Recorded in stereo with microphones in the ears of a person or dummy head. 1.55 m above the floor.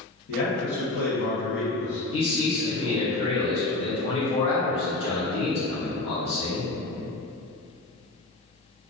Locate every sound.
0.3 s a man speaking: 50° left (ahead or behind), 0.8 m
2.1 s a man speaking: 25° left (ahead or behind), 0.8 m